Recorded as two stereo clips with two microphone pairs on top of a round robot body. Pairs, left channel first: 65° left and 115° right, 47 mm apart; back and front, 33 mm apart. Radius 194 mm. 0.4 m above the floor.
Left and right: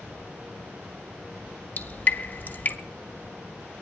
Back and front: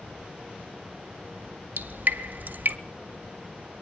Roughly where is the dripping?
Ahead.